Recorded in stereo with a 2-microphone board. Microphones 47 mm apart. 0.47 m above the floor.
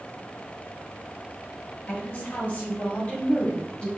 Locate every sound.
1.9 s a woman speaking: 55° left (ahead or behind), 3.5 m; by 3.9 s 20° left (ahead or behind), 2.5 m